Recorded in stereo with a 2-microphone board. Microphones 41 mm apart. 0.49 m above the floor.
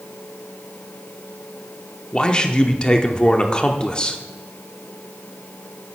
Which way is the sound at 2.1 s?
20° left (ahead or behind).